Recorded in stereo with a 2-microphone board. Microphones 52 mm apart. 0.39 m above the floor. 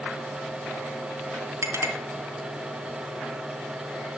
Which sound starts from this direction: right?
A clink, at 1.6 s.